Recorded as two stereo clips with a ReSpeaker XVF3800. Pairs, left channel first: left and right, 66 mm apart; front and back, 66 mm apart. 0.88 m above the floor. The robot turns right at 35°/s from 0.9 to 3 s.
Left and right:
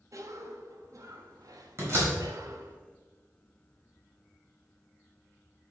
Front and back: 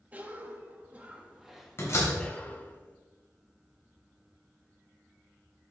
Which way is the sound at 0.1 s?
115° right.